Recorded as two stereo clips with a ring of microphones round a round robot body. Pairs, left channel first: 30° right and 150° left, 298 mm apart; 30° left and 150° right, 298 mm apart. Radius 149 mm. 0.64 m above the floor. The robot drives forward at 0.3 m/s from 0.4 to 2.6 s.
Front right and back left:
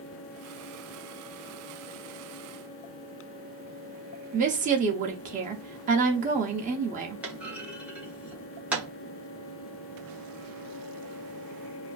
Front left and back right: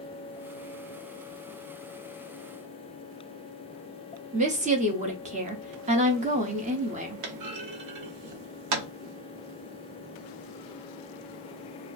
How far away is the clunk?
About 0.7 m.